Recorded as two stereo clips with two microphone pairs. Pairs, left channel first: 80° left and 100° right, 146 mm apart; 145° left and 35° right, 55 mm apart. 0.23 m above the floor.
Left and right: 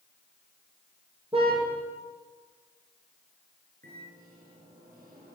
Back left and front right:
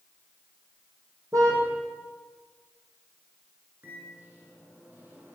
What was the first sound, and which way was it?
A car horn, 50° right.